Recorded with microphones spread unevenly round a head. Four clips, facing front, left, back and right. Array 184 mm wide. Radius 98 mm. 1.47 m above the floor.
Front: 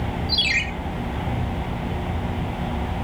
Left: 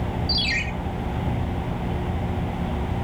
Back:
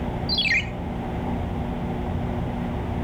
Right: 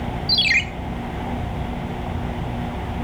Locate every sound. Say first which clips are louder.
0.3 s a ringtone: right 4 dB, even; 110° right, 1.5 m